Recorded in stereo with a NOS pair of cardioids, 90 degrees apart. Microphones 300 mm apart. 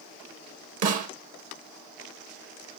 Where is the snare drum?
60° right, 1.5 m.